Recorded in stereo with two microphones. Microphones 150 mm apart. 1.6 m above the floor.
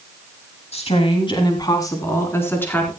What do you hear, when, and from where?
0.7 s a woman speaking: 45° left (ahead or behind), 2.5 m; by 2.9 s 10° left (ahead or behind), 4.5 m